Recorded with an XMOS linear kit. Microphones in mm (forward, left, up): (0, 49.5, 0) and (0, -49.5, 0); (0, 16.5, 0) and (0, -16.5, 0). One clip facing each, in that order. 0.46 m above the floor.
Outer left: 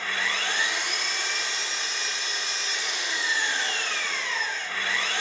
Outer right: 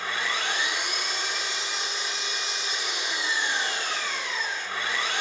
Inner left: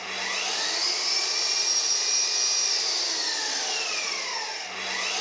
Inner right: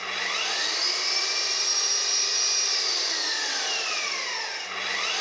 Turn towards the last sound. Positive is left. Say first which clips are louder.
# even, inner right 2 dB
turn(degrees=-20)  # may be behind; listen again after turning